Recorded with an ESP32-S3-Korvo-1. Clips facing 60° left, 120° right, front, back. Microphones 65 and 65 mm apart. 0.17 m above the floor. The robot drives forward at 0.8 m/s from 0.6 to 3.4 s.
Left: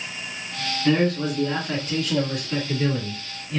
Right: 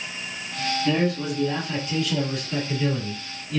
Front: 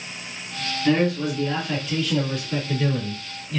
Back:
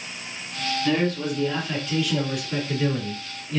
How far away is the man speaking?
About 2.5 m.